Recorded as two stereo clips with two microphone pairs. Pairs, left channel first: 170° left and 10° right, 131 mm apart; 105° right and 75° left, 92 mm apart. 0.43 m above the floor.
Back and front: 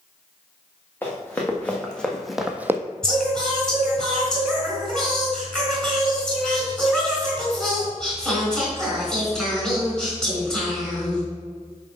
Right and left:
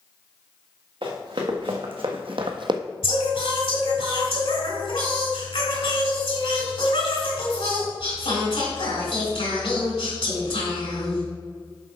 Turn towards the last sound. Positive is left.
turn(degrees=-105)